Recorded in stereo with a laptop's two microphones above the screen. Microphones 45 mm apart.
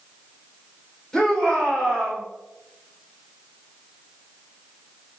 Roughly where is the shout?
Centre.